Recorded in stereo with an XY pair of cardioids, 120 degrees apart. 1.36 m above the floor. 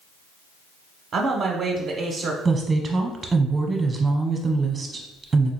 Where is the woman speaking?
30° right, 0.8 m.